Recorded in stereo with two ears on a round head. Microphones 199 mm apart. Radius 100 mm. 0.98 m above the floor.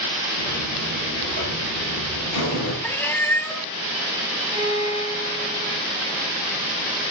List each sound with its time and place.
0.4 s a buzzer: 65° left (ahead or behind), 6 m
2.8 s a cat meowing: 10° left (ahead or behind), 0.7 m
4.5 s a violin: 85° left, 7.5 m